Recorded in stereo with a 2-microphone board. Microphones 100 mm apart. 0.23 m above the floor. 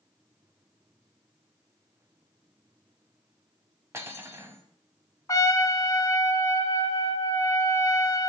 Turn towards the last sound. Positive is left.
turn(degrees=40)  # may be behind; listen again after turning